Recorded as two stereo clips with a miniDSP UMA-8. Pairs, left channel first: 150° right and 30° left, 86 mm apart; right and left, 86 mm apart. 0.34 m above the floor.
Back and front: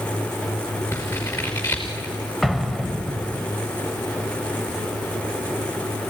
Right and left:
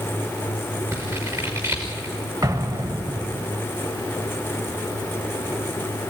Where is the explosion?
115° left, 0.8 m.